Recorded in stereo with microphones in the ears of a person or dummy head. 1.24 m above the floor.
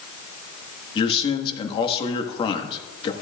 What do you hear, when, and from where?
0.9 s a man speaking: 35° left (ahead or behind), 1.2 m